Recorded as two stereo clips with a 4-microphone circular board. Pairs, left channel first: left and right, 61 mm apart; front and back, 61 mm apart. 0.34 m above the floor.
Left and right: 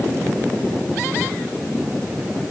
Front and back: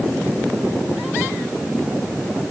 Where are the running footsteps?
No running footsteps in this recording.